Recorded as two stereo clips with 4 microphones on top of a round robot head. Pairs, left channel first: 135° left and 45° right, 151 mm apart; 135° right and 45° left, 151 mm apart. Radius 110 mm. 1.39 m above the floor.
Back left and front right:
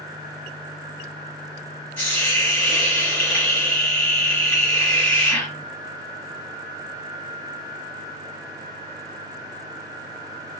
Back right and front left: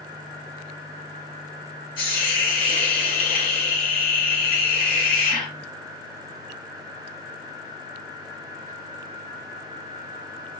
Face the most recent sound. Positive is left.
turn(degrees=-150)